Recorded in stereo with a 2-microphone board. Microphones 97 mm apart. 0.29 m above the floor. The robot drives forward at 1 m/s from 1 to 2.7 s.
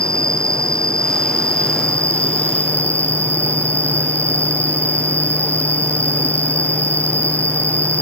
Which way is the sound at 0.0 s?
10° left (ahead or behind).